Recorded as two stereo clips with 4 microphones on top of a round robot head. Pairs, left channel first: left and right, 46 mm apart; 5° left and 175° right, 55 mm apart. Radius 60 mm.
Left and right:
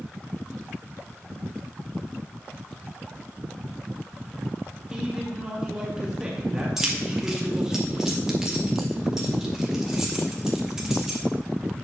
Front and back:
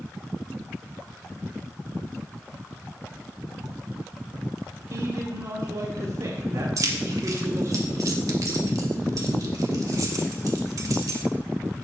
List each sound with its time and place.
4.9 s a man speaking: 165° right, 1.6 m
6.8 s keys jangling: 170° right, 1.5 m